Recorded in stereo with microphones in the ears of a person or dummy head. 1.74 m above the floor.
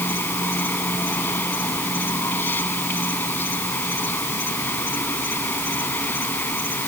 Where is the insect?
10° left (ahead or behind).